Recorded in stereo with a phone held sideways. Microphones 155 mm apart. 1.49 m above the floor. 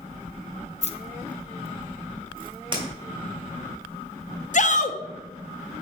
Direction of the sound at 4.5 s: 55° left (ahead or behind).